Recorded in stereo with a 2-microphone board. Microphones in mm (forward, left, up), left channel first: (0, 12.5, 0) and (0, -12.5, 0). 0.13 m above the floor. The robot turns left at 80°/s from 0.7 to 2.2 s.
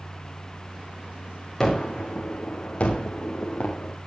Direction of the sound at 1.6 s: 15° left (ahead or behind).